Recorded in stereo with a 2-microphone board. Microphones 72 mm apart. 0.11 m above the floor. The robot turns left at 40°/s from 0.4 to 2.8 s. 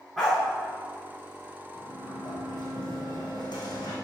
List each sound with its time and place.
0.2 s a dog barking: centre (ahead or behind), 4.5 m
1.8 s a sliding door: 140° left, 3.5 m; by 4.0 s 95° left, 3.5 m